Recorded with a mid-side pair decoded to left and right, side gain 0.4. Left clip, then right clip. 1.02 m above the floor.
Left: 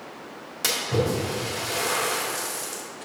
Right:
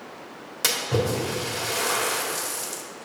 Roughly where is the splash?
Ahead.